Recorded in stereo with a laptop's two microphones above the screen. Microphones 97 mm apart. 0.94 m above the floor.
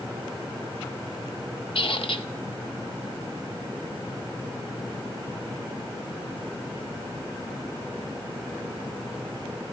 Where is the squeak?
65° left (ahead or behind), 1.7 m.